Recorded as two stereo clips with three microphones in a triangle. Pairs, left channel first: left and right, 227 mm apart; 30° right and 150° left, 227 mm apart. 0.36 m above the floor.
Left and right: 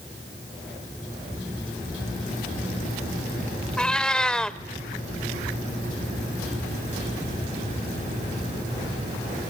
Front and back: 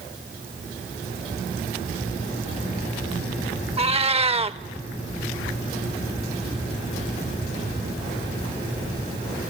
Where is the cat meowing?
170° left, 0.6 m.